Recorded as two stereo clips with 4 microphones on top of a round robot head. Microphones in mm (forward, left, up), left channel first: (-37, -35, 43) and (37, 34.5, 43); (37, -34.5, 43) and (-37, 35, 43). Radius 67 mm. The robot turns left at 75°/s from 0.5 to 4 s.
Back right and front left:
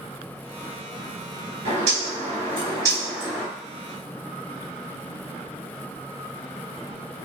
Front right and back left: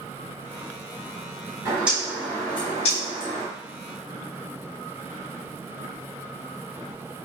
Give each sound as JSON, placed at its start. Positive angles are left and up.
{"t": 1.6, "sound": "a bird", "azimuth_deg": 75, "distance_m": 3.5}